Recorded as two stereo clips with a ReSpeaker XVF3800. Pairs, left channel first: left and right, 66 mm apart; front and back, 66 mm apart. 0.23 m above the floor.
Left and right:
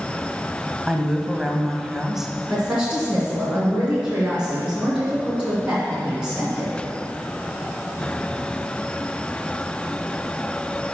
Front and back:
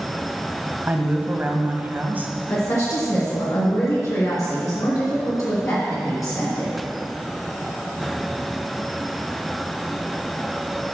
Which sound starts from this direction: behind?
A woman speaking, at 0.9 s.